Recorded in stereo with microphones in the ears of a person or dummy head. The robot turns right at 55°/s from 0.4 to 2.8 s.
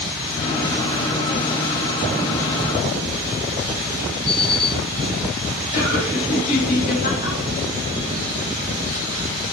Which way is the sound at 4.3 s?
60° left (ahead or behind).